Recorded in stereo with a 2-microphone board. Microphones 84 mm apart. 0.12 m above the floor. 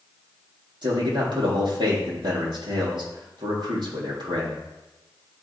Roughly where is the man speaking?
Right.